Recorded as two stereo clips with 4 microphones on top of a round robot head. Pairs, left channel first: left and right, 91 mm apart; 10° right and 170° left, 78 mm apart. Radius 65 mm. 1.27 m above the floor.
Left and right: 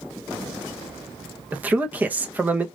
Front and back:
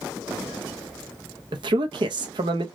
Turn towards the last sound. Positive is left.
turn(degrees=-165)